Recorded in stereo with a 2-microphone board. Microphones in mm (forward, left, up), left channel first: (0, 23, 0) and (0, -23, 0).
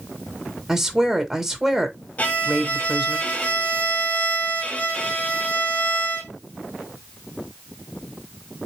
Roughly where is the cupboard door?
No cupboard door in this recording.